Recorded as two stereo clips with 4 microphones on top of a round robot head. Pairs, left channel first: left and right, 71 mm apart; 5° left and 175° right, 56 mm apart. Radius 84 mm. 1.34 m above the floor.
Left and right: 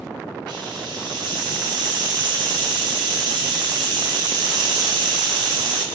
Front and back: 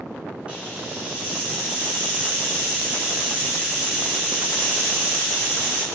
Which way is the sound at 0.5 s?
105° right.